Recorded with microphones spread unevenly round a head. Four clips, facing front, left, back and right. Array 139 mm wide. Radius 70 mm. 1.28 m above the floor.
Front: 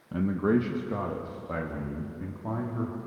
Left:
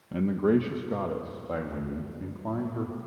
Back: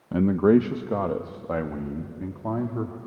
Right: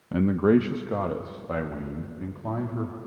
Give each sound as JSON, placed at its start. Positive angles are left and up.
{"t": 0.1, "sound": "a man speaking", "azimuth_deg": -170, "distance_m": 0.6}